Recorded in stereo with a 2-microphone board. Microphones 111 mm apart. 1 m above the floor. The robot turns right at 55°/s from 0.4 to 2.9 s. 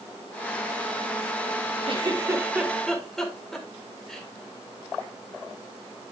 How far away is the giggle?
About 1.5 m.